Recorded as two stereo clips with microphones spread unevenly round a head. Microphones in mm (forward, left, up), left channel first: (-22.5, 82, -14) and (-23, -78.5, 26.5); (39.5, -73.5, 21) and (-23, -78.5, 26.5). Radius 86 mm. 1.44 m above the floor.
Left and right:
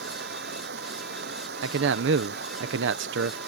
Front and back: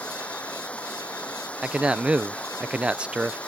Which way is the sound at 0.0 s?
65° right.